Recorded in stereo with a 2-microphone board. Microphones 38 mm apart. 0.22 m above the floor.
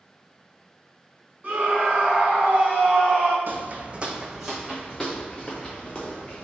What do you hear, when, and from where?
1.4 s a scream: 45° right (ahead or behind), 1.8 m; by 3.4 s 30° right (ahead or behind), 1.3 m
3.5 s footsteps: 65° right (ahead or behind), 0.5 m; by 6.5 s 25° left (ahead or behind), 1.5 m